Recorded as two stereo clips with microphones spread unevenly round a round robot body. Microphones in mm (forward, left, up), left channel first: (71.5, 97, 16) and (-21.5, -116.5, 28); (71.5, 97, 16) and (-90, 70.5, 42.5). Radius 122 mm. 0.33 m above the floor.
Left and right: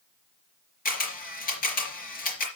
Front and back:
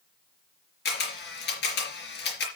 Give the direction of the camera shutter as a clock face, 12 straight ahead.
12 o'clock.